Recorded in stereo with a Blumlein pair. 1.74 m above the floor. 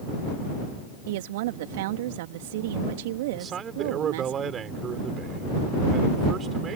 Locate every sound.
1.1 s a woman speaking: 50° right
3.3 s a man speaking: 25° right